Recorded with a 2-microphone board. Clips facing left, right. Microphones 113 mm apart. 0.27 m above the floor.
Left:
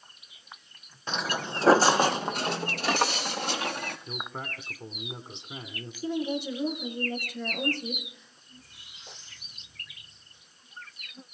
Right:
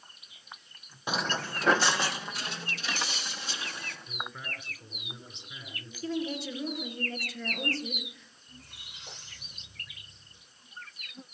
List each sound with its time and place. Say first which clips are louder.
1.1 s footsteps: left 1 dB; 15° right (ahead or behind), 0.6 m; by 4.0 s 65° left (ahead or behind), 3 m
4.1 s a man speaking: left 3 dB; 65° left (ahead or behind), 2.5 m
6.0 s a woman speaking: left 3 dB; 15° left (ahead or behind), 5 m
8.5 s a squeak: right 2 dB; 85° right, 10 m